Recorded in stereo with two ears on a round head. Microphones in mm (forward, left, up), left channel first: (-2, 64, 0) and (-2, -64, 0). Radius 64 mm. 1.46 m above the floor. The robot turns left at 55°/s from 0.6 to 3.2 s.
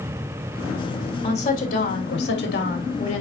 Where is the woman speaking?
145° left, 3 m; by 3.2 s 35° left, 3 m.